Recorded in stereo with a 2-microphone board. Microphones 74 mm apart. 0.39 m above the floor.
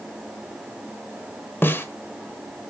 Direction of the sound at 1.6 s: 30° left (ahead or behind).